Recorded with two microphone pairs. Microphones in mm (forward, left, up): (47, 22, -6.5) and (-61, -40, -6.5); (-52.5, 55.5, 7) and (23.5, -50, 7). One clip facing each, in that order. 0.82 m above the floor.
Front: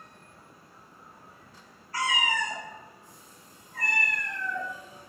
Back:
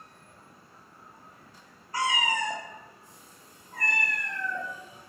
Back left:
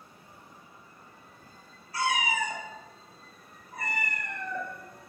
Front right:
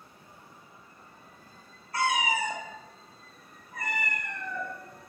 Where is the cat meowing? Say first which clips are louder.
Back 1 dB, front right 1 dB; 85° right, 0.7 m; by 4.7 s 170° left, 1.5 m.